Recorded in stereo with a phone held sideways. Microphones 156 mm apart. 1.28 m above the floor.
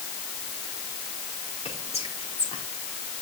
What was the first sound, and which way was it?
Whispering, 40° left (ahead or behind).